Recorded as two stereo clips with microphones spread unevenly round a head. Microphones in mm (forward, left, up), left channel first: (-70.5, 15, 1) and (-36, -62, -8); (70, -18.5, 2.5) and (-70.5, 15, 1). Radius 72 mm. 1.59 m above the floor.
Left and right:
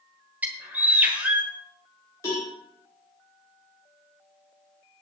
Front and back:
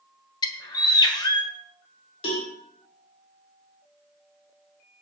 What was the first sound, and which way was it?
A bird, 5° left.